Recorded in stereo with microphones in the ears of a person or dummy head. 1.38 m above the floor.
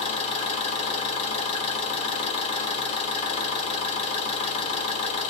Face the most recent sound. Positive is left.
turn(degrees=30)  # may be behind; listen again after turning